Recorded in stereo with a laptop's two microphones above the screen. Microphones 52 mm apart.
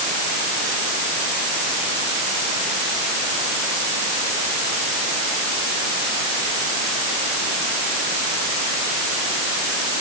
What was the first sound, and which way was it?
Only background noise.